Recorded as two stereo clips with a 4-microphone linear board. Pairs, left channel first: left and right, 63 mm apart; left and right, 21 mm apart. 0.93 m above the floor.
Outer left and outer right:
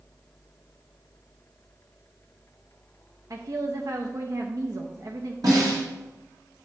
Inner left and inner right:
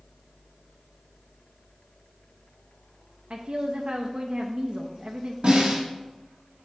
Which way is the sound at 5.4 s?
85° right.